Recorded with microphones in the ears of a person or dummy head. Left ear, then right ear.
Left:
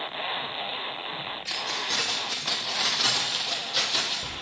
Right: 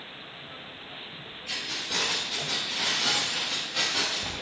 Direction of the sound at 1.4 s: 50° left (ahead or behind).